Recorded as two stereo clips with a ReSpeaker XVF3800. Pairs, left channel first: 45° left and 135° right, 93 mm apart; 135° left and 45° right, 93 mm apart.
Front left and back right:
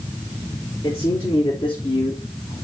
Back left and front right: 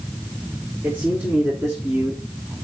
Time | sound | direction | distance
0.8 | a man speaking | 20° left | 4.5 m